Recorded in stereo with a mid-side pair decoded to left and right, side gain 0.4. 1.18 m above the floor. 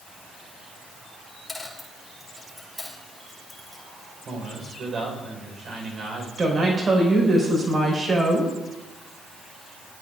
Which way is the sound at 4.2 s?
50° right.